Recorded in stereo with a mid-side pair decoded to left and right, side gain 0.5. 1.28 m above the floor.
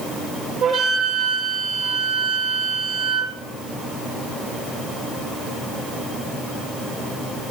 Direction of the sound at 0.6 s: 65° right.